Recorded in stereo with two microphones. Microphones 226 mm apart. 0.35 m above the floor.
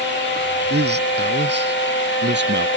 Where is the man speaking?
50° right (ahead or behind); by 2.7 s 55° right (ahead or behind).